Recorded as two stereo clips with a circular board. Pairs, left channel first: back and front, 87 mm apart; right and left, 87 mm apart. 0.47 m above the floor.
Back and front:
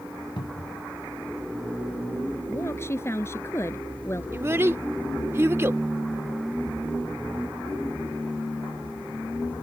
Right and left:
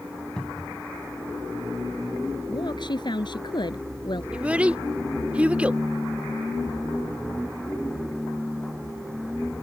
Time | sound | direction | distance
0.4 | a cupboard door | 170° right | ?
2.5 | a woman speaking | 120° right | ?
4.3 | a child speaking | 30° left | ?